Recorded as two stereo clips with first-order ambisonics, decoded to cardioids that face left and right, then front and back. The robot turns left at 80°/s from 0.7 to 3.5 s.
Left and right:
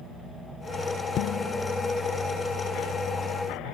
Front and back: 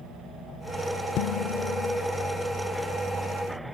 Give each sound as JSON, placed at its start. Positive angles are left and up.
{"t": 1.2, "sound": "dishes clattering", "azimuth_deg": 40}